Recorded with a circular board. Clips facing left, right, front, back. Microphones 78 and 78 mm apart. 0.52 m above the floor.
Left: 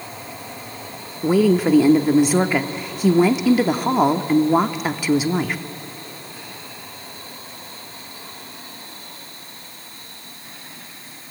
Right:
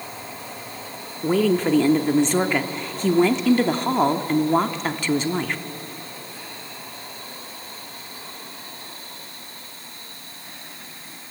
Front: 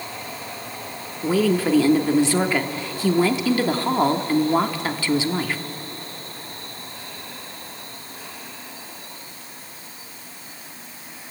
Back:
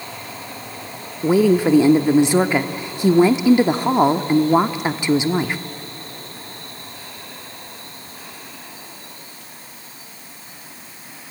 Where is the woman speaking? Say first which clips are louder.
Left 3 dB, back 5 dB; 155° left, 0.7 m.